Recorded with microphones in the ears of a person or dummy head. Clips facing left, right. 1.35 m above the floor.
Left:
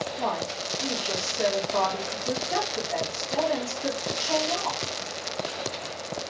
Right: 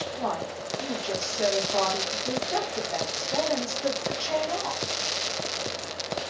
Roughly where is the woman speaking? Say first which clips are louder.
Right 1 dB; centre.